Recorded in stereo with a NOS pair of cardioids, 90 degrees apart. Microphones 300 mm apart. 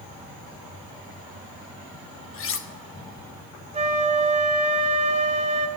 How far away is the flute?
About 1.9 m.